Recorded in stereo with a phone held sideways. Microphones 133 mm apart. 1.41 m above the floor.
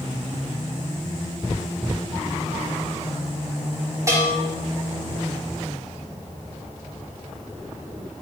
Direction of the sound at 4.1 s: 25° right (ahead or behind).